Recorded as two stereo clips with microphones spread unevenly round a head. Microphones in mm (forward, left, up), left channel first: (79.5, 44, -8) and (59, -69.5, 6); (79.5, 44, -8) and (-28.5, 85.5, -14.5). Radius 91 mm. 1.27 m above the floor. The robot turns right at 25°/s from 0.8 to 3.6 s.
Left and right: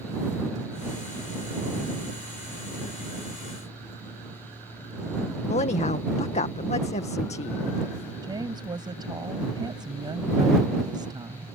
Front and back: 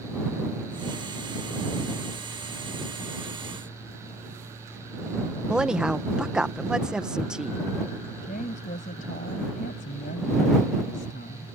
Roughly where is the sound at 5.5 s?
Left.